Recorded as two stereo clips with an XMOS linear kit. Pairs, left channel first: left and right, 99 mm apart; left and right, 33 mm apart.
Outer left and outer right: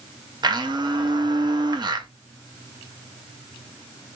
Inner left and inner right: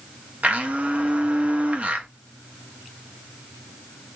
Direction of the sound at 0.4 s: 45° right (ahead or behind).